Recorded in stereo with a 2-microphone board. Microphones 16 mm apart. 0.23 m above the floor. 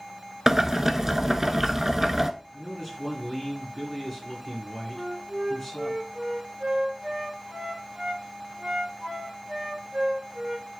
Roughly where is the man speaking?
Centre.